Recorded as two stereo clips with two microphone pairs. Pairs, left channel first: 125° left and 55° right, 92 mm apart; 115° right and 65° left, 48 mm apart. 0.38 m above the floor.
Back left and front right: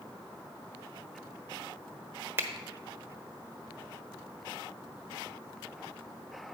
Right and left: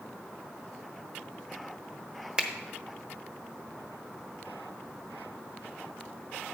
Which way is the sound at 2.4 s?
5° right.